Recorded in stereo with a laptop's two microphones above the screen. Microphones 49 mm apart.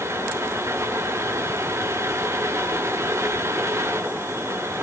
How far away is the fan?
About 1.1 m.